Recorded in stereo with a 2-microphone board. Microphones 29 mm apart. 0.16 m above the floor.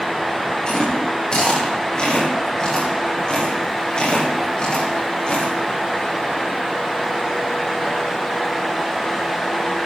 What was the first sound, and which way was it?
Chewing, 30° left (ahead or behind).